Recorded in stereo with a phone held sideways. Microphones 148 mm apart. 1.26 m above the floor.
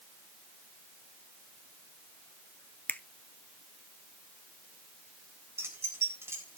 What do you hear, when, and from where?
2.9 s a finger snap: 10° left (ahead or behind), 0.6 m
5.6 s keys jangling: 15° right (ahead or behind), 4 m